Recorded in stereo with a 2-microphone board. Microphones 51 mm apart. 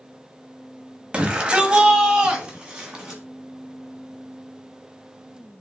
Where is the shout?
20° right (ahead or behind), 1.2 m; by 3.2 s 15° right (ahead or behind), 2 m.